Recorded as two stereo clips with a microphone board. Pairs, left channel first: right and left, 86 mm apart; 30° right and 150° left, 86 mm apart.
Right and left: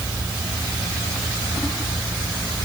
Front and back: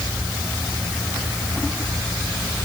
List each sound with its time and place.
Only background noise.